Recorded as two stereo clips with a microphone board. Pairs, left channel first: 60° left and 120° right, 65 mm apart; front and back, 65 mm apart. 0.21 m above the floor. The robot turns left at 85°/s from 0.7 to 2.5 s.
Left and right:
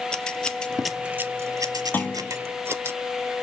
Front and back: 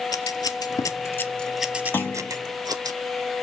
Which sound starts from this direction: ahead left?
A clunk, at 1.9 s.